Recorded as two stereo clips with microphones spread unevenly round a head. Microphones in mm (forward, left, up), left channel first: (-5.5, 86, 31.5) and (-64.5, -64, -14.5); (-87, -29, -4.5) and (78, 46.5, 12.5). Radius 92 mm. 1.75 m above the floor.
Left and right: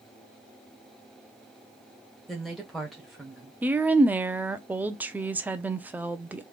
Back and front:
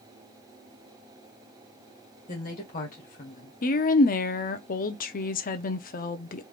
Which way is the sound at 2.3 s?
160° left.